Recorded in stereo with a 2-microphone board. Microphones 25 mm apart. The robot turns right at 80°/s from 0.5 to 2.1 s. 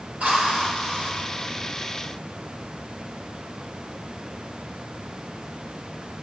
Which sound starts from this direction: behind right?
A drill, at 0.2 s.